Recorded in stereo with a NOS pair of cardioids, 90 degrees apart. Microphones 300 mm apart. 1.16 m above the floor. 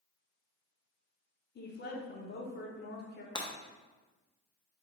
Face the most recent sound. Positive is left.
turn(degrees=15)